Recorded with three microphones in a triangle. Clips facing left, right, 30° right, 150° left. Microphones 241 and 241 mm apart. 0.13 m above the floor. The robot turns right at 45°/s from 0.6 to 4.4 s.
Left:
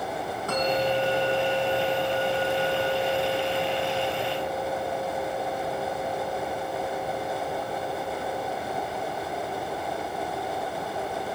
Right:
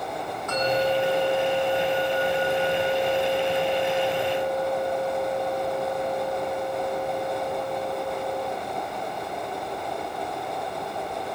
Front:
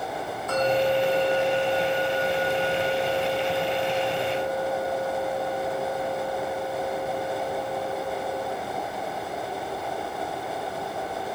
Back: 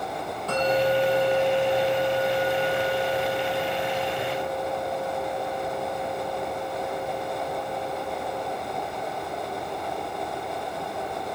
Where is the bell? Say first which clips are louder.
Right 2 dB, even; 145° left, 5.5 m; by 8.5 s 45° right, 5.5 m.